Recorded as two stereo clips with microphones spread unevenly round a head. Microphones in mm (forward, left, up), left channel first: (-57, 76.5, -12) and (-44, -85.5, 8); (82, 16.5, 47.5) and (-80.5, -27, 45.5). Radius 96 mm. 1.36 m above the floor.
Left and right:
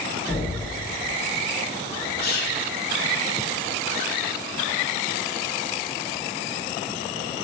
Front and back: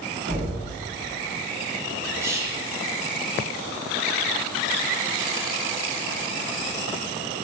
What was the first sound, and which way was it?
Knocking, 150° left.